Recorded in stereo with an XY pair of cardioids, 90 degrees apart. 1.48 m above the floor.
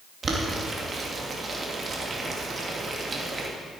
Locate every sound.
0.2 s boiling: 40° right, 2.5 m